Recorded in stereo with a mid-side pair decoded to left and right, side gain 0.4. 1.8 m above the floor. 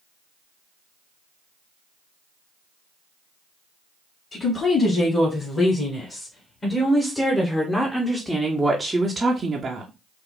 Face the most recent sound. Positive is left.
turn(degrees=-65)